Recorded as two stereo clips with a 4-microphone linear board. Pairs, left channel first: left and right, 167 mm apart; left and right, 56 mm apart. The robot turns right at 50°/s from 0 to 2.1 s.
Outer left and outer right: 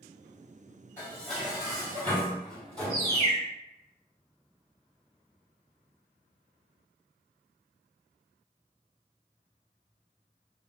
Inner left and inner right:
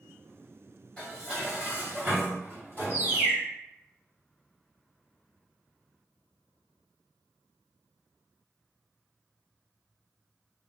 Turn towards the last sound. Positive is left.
turn(degrees=-30)  # may be behind; listen again after turning